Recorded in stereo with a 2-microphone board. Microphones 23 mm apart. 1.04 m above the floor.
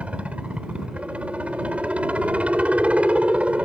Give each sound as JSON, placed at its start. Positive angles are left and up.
{"t": 0.0, "sound": "a helicopter", "side_deg": -70}